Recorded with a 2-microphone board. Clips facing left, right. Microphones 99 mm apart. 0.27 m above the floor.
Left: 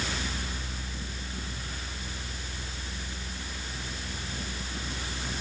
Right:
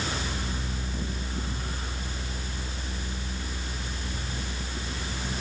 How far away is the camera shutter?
I don't hear a camera shutter.